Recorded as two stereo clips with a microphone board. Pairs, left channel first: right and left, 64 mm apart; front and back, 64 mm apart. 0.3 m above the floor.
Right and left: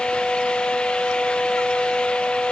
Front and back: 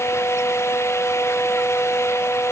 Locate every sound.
Only background noise.